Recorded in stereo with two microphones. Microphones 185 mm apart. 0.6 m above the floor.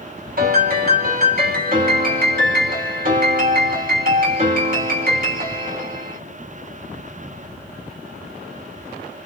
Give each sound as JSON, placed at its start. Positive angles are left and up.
{"t": 0.4, "sound": "a piano", "side_deg": -55, "distance_m": 1.6}